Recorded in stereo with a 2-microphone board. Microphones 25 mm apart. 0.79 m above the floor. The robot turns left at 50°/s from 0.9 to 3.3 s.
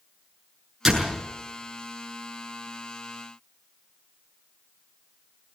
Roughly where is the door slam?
Centre.